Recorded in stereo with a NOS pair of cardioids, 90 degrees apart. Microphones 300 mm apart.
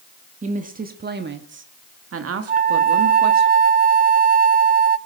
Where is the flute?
30° right, 0.7 m.